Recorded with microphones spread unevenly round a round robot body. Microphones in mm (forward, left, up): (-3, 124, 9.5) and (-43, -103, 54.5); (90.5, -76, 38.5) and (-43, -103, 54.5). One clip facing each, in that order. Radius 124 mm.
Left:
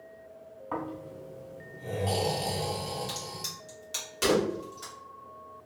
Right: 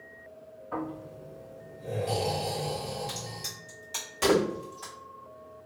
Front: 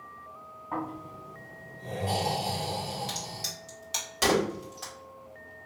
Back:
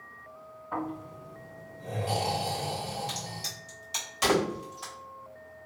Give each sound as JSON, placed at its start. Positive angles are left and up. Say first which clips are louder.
{"t": 0.7, "sound": "snoring", "louder": "right 1 dB, back 1 dB", "azimuth_deg": 65, "distance_m": 1.9}
{"t": 3.1, "sound": "a crack", "louder": "even, even", "azimuth_deg": 10, "distance_m": 2.0}